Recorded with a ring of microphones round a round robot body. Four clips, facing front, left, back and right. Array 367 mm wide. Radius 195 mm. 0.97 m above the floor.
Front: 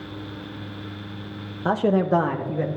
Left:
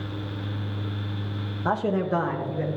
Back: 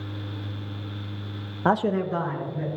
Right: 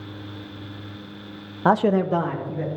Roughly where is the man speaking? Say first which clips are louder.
Right 6 dB, front 3 dB; right.